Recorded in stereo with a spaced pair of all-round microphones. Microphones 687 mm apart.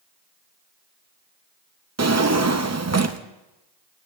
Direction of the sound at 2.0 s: 25° right (ahead or behind).